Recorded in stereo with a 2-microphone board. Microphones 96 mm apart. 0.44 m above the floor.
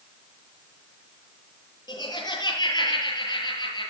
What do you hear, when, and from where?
1.9 s laughter: 45° left (ahead or behind), 9.5 m